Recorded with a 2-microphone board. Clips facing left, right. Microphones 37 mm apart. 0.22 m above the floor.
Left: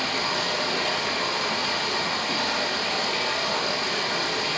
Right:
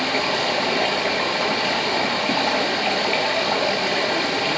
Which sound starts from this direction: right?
Running water, at 0.0 s.